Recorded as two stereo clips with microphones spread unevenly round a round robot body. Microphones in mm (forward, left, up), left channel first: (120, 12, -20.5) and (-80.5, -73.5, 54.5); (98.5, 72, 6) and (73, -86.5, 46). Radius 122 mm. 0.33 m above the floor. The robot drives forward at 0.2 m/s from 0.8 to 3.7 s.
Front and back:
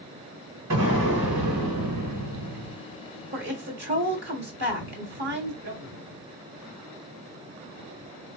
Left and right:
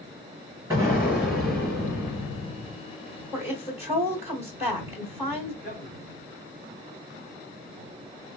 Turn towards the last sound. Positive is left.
turn(degrees=-170)